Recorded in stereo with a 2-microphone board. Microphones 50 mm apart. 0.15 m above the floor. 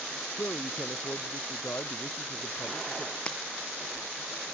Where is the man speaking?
45° left (ahead or behind); by 3.2 s 55° left (ahead or behind).